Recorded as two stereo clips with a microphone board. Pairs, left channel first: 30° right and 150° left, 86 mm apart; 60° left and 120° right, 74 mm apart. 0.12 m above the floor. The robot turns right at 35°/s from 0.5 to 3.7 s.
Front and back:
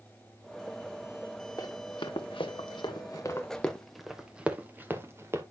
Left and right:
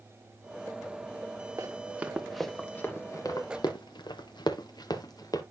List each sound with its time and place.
1.6 s running footsteps: 70° right, 1.8 m; by 5.4 s 95° left, 1.8 m